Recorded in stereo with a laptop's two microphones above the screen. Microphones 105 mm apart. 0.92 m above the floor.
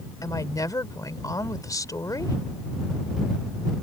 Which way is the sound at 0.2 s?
35° left (ahead or behind).